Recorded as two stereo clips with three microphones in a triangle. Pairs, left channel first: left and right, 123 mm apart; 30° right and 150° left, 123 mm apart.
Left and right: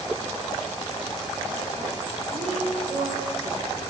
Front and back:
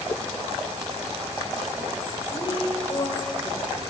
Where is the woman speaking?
75° right, 4 m.